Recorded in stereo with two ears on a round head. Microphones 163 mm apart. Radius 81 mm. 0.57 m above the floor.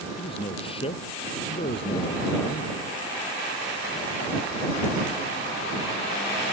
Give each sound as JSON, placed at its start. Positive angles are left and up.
{"t": 0.2, "sound": "a man speaking", "side_deg": 30}